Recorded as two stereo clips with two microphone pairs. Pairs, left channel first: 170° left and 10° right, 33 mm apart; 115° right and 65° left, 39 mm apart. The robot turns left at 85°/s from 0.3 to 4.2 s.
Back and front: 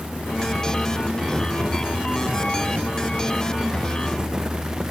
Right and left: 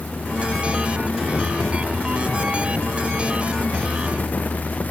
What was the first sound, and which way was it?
Only background noise.